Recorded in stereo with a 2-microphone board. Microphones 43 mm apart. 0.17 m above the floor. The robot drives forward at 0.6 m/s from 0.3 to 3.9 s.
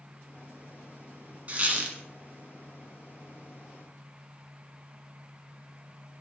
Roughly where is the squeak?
Right.